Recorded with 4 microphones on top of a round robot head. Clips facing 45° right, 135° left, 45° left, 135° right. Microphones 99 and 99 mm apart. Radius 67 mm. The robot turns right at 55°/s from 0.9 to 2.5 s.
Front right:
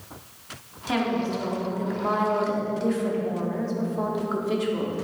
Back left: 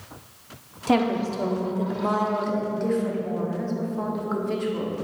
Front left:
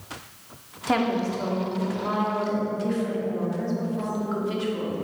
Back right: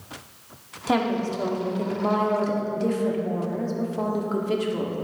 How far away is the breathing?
No breathing in this recording.